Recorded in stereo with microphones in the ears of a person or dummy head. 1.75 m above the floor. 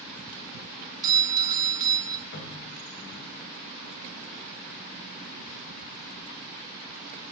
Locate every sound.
1.0 s a doorbell: 20° right (ahead or behind), 0.9 m
2.3 s a cupboard door: 55° left (ahead or behind), 3 m